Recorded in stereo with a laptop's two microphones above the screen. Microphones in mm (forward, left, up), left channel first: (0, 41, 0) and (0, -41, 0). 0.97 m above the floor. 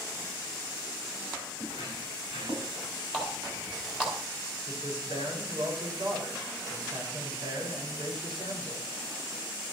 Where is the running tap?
10° right (ahead or behind), 4 m.